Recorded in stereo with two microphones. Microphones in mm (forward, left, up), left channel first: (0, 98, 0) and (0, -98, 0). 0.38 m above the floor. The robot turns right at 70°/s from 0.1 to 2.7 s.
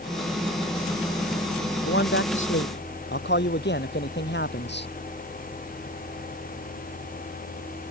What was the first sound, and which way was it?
A man speaking, 55° left.